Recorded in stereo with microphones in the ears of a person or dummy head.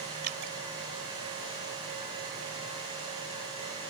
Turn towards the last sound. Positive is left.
turn(degrees=-55)  # may be behind; listen again after turning